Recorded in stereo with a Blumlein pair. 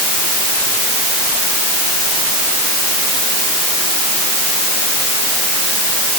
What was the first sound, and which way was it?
Only background noise.